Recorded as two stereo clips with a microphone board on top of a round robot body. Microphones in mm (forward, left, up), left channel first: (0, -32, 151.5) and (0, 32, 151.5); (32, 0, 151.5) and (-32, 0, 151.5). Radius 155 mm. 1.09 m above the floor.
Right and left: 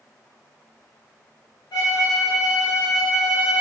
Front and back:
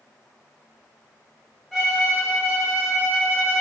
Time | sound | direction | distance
1.7 | a violin | 90° right | 0.9 m